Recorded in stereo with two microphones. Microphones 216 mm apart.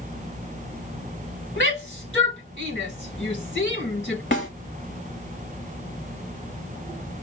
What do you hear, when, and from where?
1.6 s a shout: 60° left (ahead or behind), 1.9 m
4.3 s a snare drum: 55° left (ahead or behind), 2.5 m